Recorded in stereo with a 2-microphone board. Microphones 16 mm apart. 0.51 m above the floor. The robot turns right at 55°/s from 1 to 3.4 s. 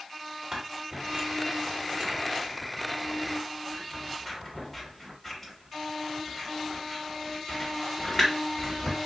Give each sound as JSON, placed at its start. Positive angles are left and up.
{"t": 0.5, "sound": "scissors", "side_deg": -40, "distance_m": 2.0}